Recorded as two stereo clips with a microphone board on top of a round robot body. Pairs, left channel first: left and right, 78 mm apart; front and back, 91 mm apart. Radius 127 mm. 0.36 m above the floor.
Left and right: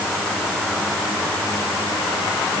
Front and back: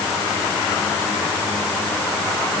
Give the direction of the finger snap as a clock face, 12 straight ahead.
I don't hear a finger snap.